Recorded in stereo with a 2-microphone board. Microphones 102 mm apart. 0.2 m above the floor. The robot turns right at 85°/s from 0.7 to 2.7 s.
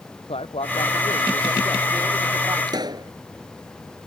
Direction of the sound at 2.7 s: 45° right (ahead or behind).